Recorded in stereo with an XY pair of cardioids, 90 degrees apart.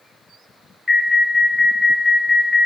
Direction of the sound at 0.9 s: 35° left.